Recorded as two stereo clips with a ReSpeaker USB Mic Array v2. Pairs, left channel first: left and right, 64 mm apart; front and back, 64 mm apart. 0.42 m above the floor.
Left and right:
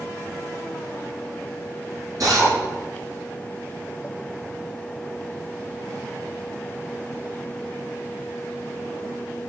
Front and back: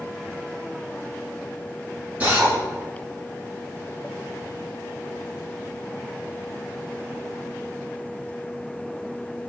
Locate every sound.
2.2 s a drill: 115° right, 5.5 m